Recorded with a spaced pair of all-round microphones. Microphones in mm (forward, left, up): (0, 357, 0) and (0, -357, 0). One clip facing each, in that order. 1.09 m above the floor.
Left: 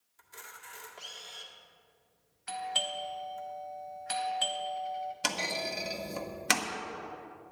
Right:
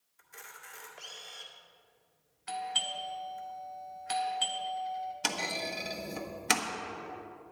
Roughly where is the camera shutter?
Left.